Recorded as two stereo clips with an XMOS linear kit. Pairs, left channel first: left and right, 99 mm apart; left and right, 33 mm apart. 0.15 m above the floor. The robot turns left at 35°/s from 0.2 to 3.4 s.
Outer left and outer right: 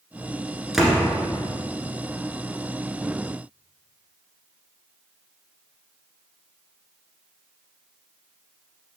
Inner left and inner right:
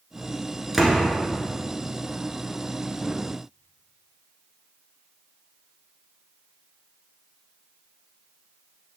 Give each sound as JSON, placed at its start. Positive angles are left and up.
{"t": 0.7, "sound": "a door slam", "side_deg": -5, "distance_m": 1.4}